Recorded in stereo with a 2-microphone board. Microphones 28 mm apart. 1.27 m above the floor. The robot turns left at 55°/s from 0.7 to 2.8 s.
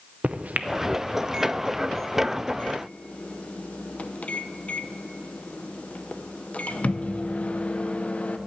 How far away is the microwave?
About 0.6 m.